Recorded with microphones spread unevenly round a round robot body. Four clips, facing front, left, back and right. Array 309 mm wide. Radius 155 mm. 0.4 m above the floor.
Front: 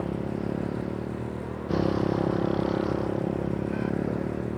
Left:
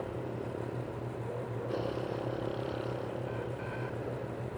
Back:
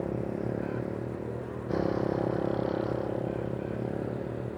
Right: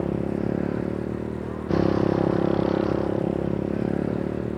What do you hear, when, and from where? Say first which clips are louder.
0.0 s a motorcycle: right 12 dB, front 2 dB; 75° right; by 4.6 s 65° right